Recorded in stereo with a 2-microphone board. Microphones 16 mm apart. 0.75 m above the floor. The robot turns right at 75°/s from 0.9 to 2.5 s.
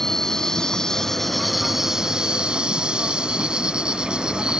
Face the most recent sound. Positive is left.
turn(degrees=-105)